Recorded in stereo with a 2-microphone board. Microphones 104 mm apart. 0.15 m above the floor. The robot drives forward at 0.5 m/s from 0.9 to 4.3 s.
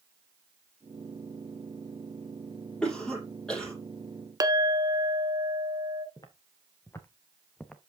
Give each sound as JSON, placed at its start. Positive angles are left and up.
{"t": 2.8, "sound": "a cough", "side_deg": 10, "distance_m": 5.0}
{"t": 4.4, "sound": "a clink", "side_deg": -35, "distance_m": 0.8}
{"t": 6.2, "sound": "footsteps", "side_deg": 40, "distance_m": 2.5}